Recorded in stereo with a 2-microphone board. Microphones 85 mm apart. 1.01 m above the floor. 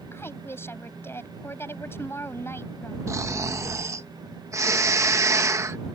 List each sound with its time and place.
0.1 s a woman speaking: 30° left (ahead or behind)
3.1 s snoring: 35° right (ahead or behind)